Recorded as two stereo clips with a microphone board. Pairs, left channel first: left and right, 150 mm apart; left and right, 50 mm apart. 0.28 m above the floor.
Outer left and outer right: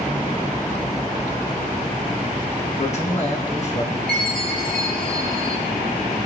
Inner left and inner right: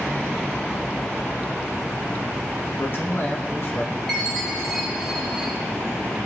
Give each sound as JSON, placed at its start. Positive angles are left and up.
{"t": 2.8, "sound": "a man speaking", "side_deg": 50, "distance_m": 3.0}
{"t": 4.1, "sound": "a chime", "side_deg": 5, "distance_m": 4.5}